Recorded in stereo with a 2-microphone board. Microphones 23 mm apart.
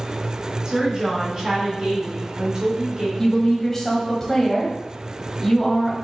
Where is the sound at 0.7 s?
35° right (ahead or behind), 2.5 m.